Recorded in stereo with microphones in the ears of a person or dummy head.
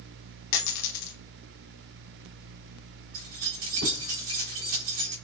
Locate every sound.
0.5 s a dropped coin: 55° left (ahead or behind), 1.3 m
3.1 s keys jangling: 55° right (ahead or behind), 2.5 m